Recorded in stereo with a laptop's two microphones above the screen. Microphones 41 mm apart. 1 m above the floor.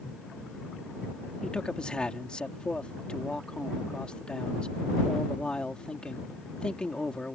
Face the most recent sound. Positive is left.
turn(degrees=20)  # may be behind; listen again after turning